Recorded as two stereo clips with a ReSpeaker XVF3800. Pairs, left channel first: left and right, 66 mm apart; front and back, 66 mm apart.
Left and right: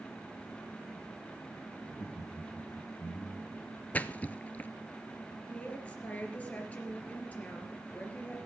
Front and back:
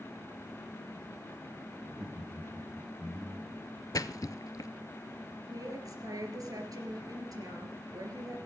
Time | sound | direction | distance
1.8 | laughter | 105° left | 5.5 m
3.9 | a splash | 25° left | 0.5 m
5.5 | a woman speaking | 160° left | 3 m